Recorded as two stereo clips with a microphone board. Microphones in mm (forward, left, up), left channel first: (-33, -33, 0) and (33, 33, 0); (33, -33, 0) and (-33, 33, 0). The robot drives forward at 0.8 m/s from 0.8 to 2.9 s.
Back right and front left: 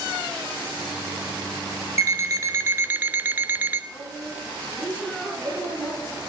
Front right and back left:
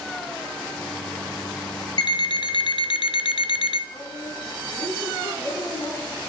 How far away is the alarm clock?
About 1.2 m.